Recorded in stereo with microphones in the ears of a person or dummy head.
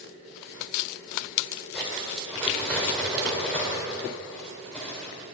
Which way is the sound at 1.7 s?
5° left (ahead or behind).